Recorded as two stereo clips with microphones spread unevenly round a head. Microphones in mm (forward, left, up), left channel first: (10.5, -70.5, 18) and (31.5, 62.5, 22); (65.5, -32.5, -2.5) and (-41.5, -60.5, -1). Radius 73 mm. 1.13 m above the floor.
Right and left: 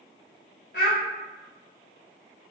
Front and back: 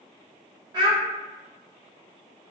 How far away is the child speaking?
About 0.5 m.